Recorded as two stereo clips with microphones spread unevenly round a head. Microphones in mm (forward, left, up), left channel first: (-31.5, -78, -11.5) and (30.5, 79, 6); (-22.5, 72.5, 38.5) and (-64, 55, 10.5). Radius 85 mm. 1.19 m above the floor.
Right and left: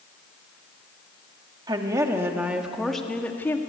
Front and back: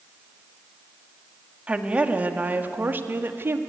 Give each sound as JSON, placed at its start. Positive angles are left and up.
{"t": 1.7, "sound": "a woman speaking", "azimuth_deg": 135, "distance_m": 2.5}